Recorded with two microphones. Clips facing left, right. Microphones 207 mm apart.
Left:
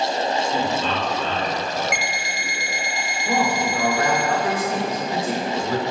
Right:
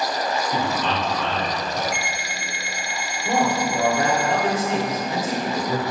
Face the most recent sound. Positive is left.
turn(degrees=-25)  # may be behind; listen again after turning